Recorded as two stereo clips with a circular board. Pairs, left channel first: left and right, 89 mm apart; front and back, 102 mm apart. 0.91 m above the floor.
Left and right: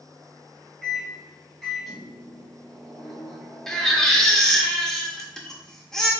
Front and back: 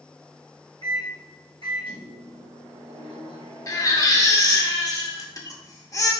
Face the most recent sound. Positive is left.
turn(degrees=10)